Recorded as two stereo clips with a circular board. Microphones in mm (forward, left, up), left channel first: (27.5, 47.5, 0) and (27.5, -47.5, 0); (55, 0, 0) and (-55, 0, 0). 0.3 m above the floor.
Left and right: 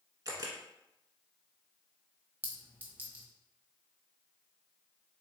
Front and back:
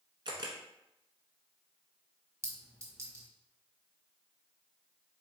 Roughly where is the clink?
Behind right.